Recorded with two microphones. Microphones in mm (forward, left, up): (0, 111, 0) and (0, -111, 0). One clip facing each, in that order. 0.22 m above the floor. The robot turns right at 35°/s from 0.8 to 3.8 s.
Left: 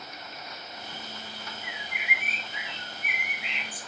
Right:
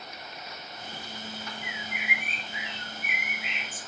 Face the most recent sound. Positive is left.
turn(degrees=55)